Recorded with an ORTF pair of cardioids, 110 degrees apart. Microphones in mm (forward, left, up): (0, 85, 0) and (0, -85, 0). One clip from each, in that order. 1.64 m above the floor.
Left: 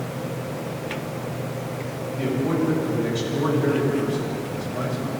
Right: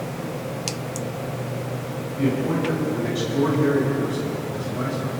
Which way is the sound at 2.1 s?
10° left.